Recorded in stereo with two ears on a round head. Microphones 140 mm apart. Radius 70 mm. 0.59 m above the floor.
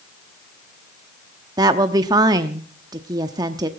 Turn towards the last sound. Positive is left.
turn(degrees=-25)  # may be behind; listen again after turning